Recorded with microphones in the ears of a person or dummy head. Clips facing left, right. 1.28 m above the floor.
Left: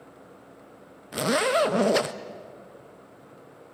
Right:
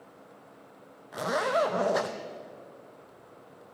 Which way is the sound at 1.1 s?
35° left (ahead or behind).